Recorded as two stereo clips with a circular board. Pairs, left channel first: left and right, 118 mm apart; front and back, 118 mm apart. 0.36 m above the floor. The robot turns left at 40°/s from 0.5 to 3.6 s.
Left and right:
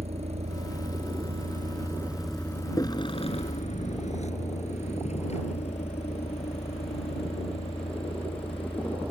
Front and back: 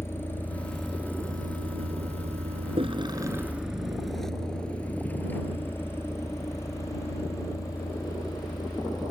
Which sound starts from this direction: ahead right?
A vehicle, at 0.0 s.